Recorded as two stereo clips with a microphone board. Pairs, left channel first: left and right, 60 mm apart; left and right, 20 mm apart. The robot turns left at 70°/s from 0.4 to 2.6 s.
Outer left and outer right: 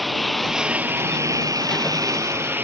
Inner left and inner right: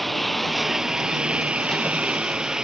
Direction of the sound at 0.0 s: Centre (ahead or behind).